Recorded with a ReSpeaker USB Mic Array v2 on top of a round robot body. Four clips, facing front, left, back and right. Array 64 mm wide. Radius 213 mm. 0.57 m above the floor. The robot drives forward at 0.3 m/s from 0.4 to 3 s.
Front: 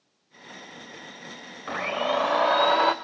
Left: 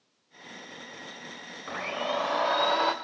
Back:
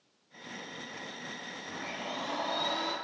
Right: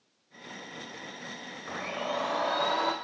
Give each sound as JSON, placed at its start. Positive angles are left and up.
{"t": 1.7, "sound": "a blender", "azimuth_deg": 10, "distance_m": 1.3}